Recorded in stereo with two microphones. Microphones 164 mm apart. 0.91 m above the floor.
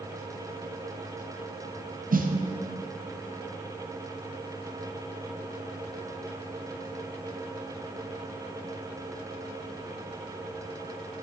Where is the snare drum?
60° right (ahead or behind), 0.6 m.